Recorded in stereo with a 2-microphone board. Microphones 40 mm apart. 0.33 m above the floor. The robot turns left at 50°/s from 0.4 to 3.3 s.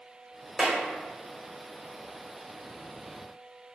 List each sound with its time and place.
0.6 s a clap: 25° right (ahead or behind), 1.0 m; by 0.8 s 30° right (ahead or behind), 1.0 m